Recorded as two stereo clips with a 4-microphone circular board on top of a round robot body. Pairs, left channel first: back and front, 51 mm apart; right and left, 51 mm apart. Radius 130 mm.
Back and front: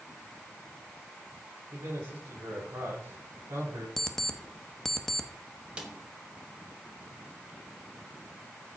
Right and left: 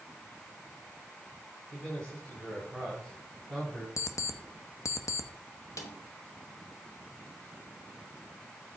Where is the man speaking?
15° right, 7.5 m.